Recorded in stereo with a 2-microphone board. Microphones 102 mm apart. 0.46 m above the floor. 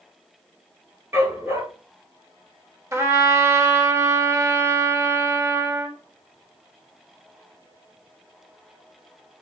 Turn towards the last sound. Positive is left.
turn(degrees=-30)  # may be behind; listen again after turning